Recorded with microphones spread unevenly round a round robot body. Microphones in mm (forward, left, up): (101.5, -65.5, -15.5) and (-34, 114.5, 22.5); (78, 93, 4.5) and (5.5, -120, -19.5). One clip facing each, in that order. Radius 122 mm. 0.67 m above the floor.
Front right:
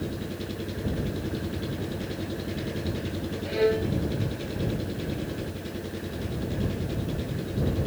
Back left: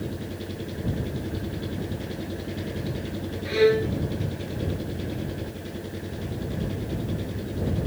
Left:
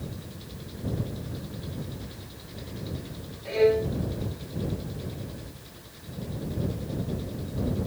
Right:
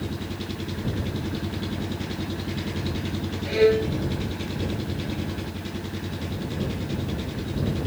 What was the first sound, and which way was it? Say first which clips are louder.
An engine running: even, right 9 dB; 140° right.